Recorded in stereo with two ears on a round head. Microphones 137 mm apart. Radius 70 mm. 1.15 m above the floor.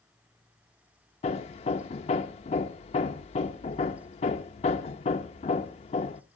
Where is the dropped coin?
No dropped coin in this recording.